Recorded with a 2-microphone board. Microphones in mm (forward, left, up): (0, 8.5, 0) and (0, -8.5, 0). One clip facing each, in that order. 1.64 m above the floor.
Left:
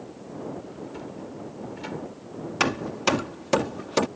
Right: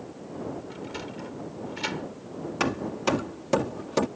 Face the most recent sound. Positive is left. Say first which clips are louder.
# left 3 dB
turn(degrees=30)  # may be behind; listen again after turning